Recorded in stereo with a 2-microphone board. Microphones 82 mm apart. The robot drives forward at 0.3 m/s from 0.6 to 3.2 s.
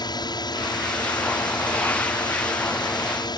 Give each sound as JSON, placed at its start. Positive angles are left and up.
{"t": 0.0, "sound": "a drone", "side_deg": 60}